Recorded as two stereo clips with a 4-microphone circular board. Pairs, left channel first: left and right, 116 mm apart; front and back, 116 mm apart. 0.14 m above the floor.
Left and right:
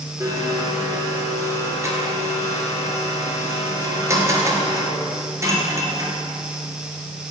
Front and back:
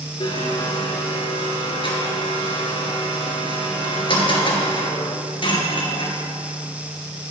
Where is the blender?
30° right, 1.7 m.